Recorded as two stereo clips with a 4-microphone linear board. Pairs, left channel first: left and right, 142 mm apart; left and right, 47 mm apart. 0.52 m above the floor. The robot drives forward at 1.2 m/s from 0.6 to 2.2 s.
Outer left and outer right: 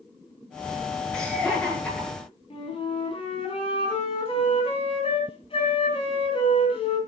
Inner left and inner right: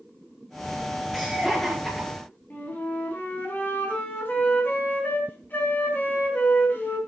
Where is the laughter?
5° left (ahead or behind), 6.5 m.